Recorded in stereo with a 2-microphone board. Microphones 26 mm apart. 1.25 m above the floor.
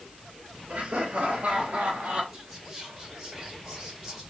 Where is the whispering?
10° right (ahead or behind), 2.0 m.